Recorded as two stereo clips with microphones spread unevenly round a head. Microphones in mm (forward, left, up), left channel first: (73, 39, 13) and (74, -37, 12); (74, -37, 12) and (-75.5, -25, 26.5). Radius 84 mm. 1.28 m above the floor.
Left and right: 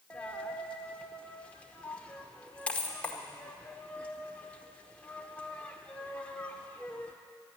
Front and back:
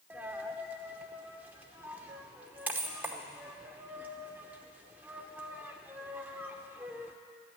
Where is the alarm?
No alarm in this recording.